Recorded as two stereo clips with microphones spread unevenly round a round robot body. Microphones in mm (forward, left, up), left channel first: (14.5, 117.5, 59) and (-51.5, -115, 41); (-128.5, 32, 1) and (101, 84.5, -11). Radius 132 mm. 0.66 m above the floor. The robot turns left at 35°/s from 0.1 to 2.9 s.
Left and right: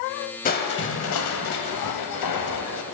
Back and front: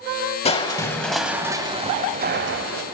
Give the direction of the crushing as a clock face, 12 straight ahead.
8 o'clock.